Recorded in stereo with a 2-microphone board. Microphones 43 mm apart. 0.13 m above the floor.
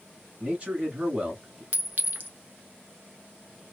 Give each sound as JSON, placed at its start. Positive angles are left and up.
{"t": 0.4, "sound": "a man speaking", "side_deg": -25, "distance_m": 1.5}
{"t": 1.7, "sound": "a clink", "side_deg": -45, "distance_m": 0.8}